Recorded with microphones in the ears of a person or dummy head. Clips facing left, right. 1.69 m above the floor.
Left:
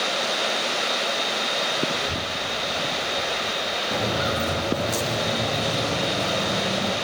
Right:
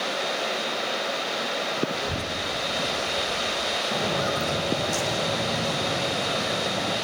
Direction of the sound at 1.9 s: 5° right (ahead or behind).